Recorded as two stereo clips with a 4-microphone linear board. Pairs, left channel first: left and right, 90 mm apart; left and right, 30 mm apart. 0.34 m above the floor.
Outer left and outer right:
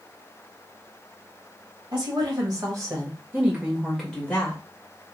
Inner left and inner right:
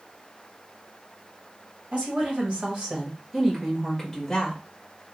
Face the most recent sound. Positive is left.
turn(degrees=25)  # may be behind; listen again after turning